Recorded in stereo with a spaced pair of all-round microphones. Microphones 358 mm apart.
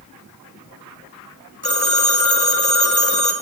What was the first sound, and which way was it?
A phone ringing, 30° right (ahead or behind).